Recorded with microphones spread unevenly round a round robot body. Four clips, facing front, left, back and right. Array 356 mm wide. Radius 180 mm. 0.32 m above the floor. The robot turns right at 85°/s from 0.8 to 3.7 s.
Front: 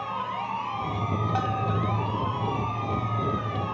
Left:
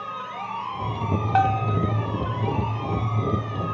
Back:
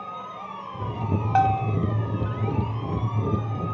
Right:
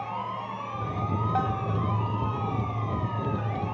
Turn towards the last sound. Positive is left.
turn(degrees=-50)